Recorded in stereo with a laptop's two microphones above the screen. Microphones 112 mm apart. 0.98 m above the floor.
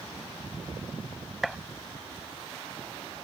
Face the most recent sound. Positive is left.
turn(degrees=0)  # may be behind; listen again after turning